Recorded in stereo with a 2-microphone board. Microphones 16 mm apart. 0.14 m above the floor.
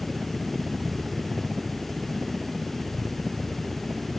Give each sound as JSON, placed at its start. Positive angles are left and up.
{"t": 0.0, "sound": "a helicopter", "side_deg": -55}